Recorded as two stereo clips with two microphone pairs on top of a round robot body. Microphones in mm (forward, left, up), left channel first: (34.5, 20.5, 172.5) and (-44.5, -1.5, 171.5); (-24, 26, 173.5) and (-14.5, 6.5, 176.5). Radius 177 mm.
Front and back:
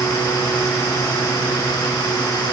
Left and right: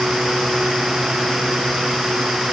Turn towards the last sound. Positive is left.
No sound to turn to.